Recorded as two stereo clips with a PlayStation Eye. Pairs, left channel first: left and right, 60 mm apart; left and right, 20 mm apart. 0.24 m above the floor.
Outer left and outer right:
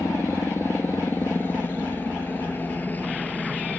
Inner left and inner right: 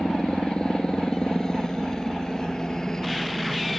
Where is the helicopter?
40° left (ahead or behind); by 3.8 s 25° left (ahead or behind).